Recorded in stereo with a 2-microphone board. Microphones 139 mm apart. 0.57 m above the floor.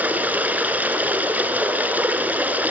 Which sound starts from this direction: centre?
Running water, at 0.0 s.